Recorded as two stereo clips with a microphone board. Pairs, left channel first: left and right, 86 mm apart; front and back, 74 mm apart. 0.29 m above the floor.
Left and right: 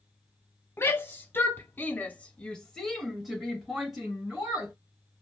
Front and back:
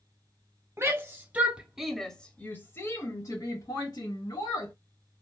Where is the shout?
145° left, 1.3 m; by 4.7 s 10° right, 2 m.